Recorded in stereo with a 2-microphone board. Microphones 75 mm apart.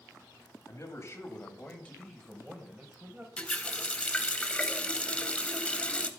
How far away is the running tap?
About 0.7 m.